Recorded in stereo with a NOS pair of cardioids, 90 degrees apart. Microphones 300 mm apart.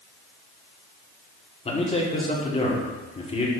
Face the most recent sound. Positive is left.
turn(degrees=20)